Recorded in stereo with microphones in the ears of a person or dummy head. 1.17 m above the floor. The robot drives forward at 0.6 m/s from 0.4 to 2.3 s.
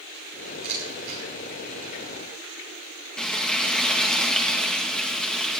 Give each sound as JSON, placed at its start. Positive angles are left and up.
{"t": 0.6, "sound": "a camera shutter", "side_deg": -45, "distance_m": 10.0}
{"t": 3.2, "sound": "frying", "side_deg": 5, "distance_m": 1.7}